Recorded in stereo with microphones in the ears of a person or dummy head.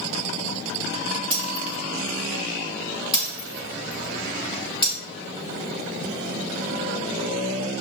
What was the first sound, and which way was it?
Breaking glass, 30° left (ahead or behind).